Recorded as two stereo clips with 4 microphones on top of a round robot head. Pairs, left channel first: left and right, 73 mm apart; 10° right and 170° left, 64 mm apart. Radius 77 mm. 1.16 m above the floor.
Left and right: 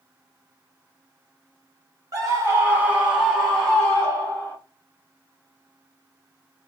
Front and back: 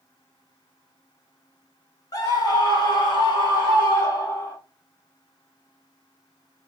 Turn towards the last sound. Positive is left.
turn(degrees=20)